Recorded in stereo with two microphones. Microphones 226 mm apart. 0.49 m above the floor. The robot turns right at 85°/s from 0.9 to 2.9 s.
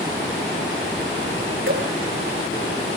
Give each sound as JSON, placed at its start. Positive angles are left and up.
{"t": 1.7, "sound": "dripping", "side_deg": -70, "distance_m": 9.0}